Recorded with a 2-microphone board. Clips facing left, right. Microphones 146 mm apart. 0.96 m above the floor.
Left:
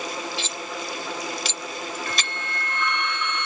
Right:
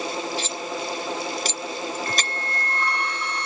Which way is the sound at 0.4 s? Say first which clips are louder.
Right 3 dB; 45° right (ahead or behind).